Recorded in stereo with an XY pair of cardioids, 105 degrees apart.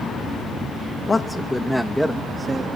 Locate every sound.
1.1 s a man speaking: 25° left, 0.8 m; by 2.7 s 25° right, 1.1 m